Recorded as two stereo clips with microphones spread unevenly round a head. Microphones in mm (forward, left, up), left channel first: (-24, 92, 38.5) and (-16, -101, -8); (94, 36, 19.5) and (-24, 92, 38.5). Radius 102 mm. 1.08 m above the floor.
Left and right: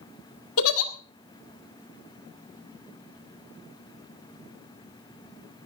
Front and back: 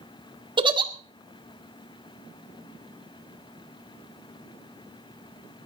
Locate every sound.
0.6 s a giggle: 100° left, 1.7 m